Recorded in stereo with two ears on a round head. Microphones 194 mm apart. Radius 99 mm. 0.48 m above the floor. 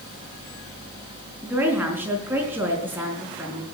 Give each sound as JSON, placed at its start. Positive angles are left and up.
{"t": 1.4, "sound": "a woman speaking", "side_deg": -10, "distance_m": 4.5}